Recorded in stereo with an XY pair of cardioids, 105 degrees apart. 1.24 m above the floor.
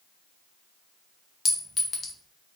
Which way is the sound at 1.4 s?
35° left.